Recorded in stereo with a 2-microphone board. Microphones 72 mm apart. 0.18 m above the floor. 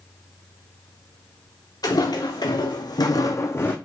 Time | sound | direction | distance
1.8 | footsteps | 65° left (ahead or behind) | 1.4 m